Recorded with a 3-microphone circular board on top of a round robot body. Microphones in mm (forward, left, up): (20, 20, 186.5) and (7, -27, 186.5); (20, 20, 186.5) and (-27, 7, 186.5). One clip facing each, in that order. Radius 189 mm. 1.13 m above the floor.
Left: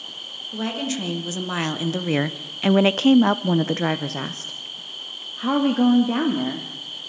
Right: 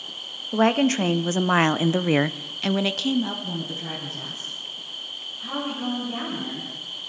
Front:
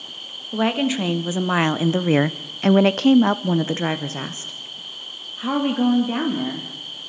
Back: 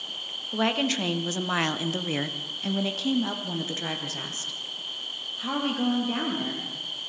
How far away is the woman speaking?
About 2 m.